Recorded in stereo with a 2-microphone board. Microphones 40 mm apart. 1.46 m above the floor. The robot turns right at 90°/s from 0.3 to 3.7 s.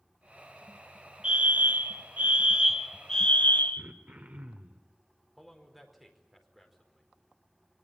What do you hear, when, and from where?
1.2 s a fire alarm: 150° right, 1.2 m; by 3.8 s 70° left, 1.2 m
3.8 s throat clearing: 40° right (ahead or behind), 2 m
5.4 s a man speaking: centre (ahead or behind), 4.5 m